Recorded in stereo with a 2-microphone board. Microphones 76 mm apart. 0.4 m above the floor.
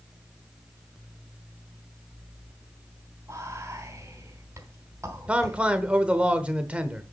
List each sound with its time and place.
3.3 s whispering: 40° right (ahead or behind), 2.5 m
5.3 s a man speaking: 15° right (ahead or behind), 0.9 m